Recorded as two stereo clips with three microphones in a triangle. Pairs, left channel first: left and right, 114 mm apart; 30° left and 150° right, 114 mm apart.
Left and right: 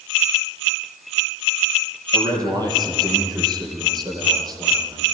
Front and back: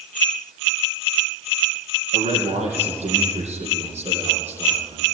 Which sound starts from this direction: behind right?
A man speaking, at 2.1 s.